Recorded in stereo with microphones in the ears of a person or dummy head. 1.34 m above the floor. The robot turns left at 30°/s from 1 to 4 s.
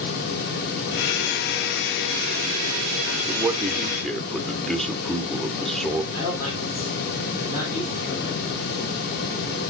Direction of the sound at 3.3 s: 20° right (ahead or behind).